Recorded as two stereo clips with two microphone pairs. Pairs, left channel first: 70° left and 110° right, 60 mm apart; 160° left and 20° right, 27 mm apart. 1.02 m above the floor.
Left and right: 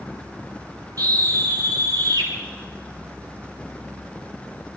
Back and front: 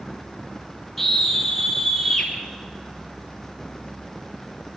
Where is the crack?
I don't hear a crack.